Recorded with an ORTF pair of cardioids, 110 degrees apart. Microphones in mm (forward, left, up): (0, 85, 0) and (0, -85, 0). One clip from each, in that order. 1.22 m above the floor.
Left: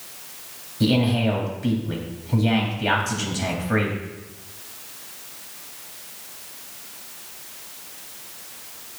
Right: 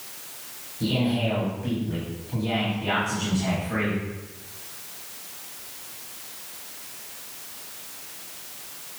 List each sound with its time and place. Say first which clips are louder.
0.8 s a man speaking: left 4 dB; 65° left, 3 m